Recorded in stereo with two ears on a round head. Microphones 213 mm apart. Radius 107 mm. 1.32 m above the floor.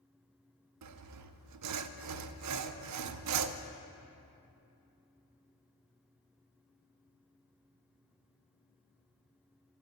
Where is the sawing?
80° right, 0.6 m.